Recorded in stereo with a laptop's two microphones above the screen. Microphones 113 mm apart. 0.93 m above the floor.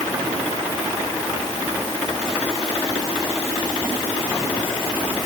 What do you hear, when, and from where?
Only background noise.